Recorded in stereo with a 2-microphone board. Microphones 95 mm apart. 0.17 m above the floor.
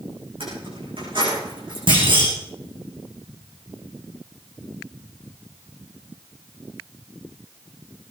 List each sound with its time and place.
0.4 s keys jangling: 70° right (ahead or behind), 9.5 m; by 1.8 s 60° right (ahead or behind), 8.5 m
1.9 s a clunk: 60° right (ahead or behind), 5 m